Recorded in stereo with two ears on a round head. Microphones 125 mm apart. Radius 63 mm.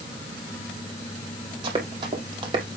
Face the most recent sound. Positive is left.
turn(degrees=-35)  # may be behind; listen again after turning